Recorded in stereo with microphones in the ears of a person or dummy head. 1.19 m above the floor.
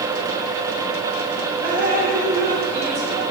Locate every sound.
1.6 s dripping: 65° right (ahead or behind), 1.9 m